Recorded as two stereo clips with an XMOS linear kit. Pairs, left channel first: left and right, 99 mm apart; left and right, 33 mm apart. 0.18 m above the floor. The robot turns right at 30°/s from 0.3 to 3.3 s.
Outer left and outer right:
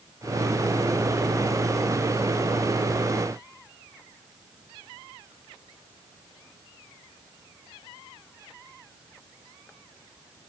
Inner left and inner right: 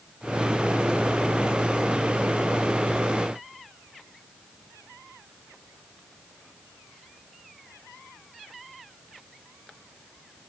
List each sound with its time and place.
Only background noise.